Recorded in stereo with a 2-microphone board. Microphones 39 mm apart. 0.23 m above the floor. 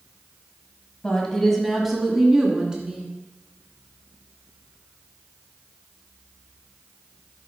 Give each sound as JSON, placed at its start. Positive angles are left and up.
{"t": 1.0, "sound": "a woman speaking", "side_deg": 20, "distance_m": 1.1}